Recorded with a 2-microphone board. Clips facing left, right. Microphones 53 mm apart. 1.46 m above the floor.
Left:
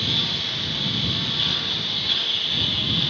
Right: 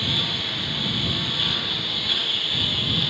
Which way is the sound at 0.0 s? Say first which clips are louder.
Even; 10° right (ahead or behind).